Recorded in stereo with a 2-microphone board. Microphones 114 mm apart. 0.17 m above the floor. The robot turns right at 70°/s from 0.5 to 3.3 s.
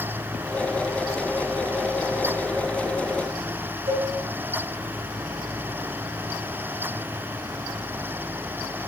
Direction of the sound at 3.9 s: 65° right (ahead or behind).